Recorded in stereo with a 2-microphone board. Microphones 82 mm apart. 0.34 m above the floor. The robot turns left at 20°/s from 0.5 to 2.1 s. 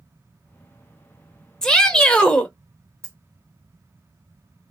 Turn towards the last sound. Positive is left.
turn(degrees=-35)  # may be behind; listen again after turning